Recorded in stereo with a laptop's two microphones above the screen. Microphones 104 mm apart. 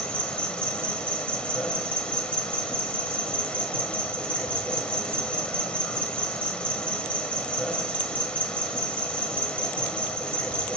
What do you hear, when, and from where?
0.0 s an insect: 10° left (ahead or behind), 1.1 m